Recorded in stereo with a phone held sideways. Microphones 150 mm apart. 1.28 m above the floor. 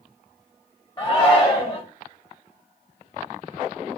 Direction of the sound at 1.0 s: 20° left (ahead or behind).